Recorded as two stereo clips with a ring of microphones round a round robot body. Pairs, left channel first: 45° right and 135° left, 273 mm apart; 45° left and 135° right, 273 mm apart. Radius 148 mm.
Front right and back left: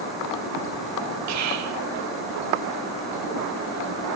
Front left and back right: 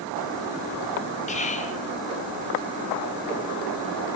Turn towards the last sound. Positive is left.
turn(degrees=110)